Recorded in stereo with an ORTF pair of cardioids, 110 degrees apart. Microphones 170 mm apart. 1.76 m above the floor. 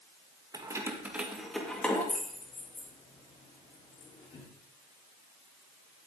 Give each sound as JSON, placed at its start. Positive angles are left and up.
{"t": 0.5, "sound": "keys jangling", "azimuth_deg": -25, "distance_m": 1.9}